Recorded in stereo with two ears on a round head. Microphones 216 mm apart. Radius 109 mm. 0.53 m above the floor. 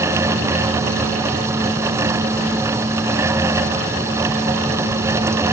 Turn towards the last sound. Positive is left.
No sound to turn to.